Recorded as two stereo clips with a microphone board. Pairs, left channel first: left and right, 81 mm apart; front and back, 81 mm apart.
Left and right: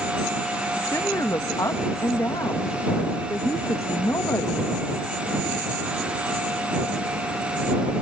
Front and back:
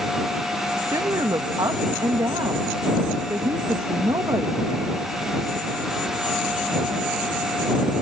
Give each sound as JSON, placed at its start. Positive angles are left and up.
{"t": 0.8, "sound": "a woman speaking", "azimuth_deg": 140}